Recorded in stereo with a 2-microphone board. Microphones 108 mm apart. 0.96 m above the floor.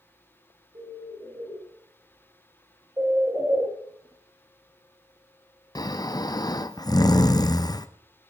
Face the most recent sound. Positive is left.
turn(degrees=40)  # may be behind; listen again after turning